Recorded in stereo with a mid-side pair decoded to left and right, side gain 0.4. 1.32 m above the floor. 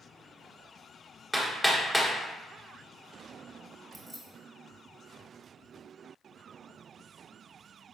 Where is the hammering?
15° left, 1.3 m.